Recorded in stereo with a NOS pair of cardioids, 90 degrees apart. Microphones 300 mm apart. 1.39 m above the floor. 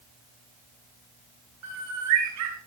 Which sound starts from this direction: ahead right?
A bird, at 1.6 s.